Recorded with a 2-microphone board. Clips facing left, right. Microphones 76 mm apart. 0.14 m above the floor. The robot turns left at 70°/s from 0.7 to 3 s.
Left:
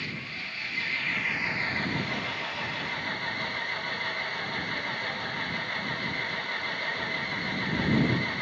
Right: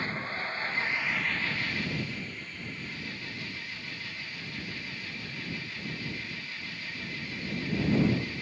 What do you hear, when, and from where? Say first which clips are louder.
0.0 s an engine running: right 4 dB; 145° right; by 8.4 s 55° left